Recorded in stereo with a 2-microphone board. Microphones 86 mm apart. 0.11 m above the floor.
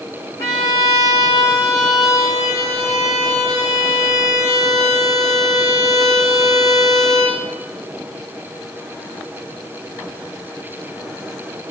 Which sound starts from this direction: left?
A violin, at 0.4 s.